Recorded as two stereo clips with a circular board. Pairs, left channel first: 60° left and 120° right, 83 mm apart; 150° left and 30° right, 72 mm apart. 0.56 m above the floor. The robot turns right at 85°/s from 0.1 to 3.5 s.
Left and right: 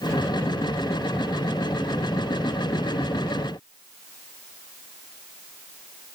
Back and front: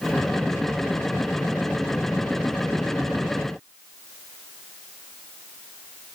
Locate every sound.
Only background noise.